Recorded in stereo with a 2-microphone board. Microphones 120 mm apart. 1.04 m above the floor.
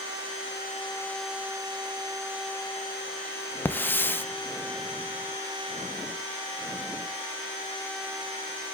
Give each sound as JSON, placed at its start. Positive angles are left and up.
{"t": 3.6, "sound": "a hiss", "side_deg": 15, "distance_m": 0.7}